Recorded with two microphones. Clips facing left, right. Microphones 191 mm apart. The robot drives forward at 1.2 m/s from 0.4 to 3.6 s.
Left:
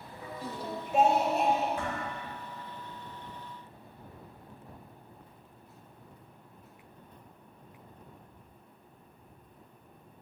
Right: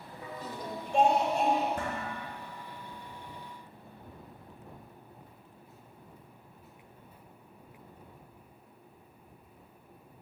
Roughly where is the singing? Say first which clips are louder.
Left 2 dB; centre.